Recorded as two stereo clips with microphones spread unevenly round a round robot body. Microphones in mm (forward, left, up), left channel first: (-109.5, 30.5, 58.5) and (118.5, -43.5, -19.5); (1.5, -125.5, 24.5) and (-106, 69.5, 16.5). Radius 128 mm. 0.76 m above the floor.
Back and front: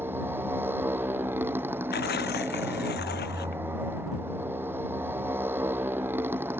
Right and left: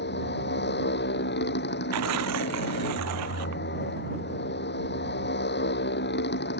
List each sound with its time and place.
0.0 s a motorcycle: 100° right
1.9 s tearing paper: 115° left